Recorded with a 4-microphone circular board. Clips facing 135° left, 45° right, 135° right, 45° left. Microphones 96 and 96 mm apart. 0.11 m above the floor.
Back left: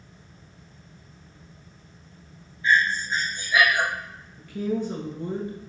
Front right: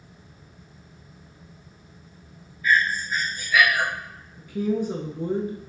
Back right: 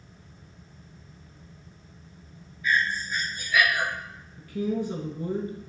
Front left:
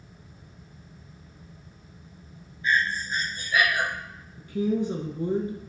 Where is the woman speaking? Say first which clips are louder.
Front right 2 dB, front left 3 dB; 20° left, 1.1 m.